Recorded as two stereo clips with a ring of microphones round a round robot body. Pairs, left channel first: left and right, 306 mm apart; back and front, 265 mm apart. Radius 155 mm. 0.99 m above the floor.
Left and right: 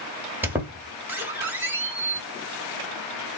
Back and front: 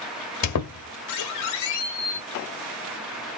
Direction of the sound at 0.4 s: 175° right.